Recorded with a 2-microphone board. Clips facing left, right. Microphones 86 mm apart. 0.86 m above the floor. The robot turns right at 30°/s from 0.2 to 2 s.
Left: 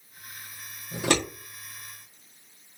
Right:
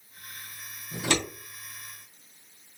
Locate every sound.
0.9 s scissors: 60° left (ahead or behind), 1.4 m; by 1.2 s 55° left (ahead or behind), 1.4 m